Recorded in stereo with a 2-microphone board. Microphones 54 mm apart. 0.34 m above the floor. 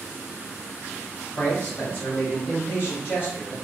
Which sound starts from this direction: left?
A man speaking, at 1.4 s.